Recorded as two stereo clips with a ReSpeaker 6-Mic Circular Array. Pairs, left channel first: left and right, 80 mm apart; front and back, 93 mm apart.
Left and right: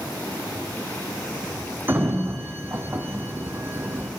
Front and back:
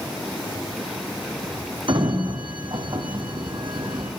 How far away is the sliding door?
About 1.6 m.